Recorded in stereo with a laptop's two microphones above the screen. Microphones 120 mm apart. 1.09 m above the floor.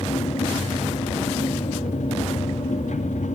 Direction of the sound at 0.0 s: 75° left (ahead or behind).